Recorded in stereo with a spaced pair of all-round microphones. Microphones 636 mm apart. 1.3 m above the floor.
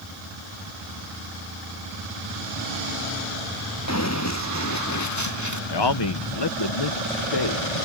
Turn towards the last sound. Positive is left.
turn(degrees=40)  # may be behind; listen again after turning